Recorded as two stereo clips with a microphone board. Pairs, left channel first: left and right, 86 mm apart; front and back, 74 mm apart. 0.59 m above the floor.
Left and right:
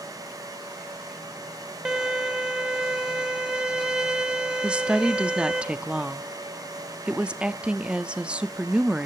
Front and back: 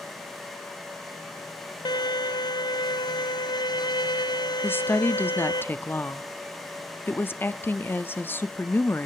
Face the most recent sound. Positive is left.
turn(degrees=-25)